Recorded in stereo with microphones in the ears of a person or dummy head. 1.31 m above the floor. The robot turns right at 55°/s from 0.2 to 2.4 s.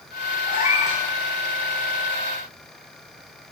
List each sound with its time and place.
0.5 s a cat meowing: 25° left (ahead or behind), 1.0 m; by 1.0 s 20° left (ahead or behind), 1.0 m